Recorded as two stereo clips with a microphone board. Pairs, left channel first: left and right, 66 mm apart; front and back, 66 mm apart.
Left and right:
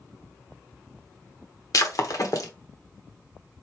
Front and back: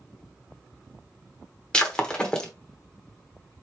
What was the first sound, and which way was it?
Breaking glass, 75° left.